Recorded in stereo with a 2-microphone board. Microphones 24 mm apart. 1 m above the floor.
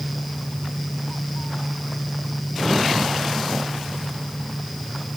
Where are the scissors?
I don't hear scissors.